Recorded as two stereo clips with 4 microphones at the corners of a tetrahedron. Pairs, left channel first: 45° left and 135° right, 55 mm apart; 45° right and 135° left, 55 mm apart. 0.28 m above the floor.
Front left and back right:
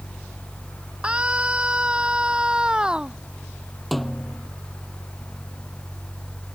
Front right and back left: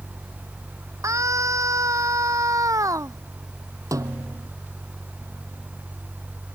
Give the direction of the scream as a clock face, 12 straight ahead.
7 o'clock.